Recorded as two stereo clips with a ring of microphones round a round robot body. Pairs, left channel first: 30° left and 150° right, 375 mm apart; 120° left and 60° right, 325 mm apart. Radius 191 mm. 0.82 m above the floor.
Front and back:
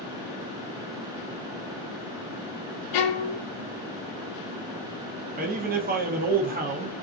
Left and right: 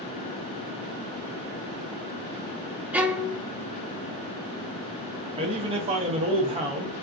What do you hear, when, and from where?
2.9 s a violin: 25° left, 0.5 m
5.4 s a man speaking: 110° right, 0.6 m